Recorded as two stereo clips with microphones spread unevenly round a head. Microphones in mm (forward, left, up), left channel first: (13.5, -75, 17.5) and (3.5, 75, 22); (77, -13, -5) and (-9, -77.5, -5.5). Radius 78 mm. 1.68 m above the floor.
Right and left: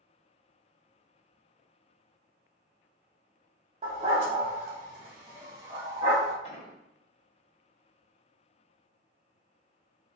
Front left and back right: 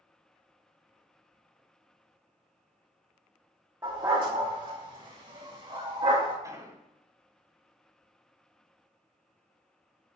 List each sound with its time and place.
3.8 s a dog barking: 145° left, 2.5 m; by 6.3 s 165° left, 3.5 m
6.4 s an explosion: 105° right, 1.8 m